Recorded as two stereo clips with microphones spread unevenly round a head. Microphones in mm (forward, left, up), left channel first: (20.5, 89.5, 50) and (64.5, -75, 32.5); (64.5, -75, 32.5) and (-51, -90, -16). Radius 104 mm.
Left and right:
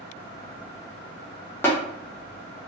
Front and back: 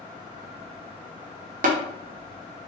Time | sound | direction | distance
1.6 | tapping | 175° right | 0.5 m